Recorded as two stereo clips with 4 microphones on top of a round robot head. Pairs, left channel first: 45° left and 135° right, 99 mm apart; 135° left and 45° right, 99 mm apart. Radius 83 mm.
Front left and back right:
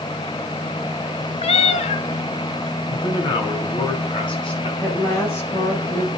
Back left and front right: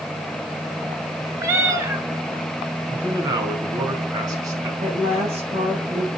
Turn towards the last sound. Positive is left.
turn(degrees=-30)